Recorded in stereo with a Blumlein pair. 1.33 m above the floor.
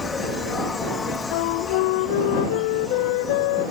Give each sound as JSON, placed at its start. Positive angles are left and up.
{"t": 0.0, "sound": "an insect", "azimuth_deg": 15}
{"t": 1.3, "sound": "a flute", "azimuth_deg": 45}